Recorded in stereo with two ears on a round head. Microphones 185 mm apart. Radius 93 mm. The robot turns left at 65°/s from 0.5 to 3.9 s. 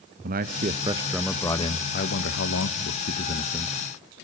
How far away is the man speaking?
About 0.8 m.